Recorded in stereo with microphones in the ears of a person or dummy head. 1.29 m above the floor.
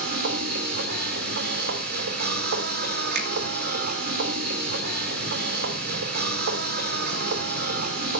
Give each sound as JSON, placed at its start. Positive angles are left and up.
{"t": 0.0, "sound": "a machine running", "side_deg": -60, "distance_m": 2.5}
{"t": 3.1, "sound": "a finger snap", "side_deg": -55, "distance_m": 2.0}